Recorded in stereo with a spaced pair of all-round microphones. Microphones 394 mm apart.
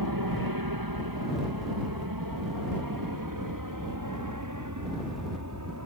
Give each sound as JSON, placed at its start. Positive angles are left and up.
{"t": 0.0, "sound": "an aircraft", "side_deg": -60}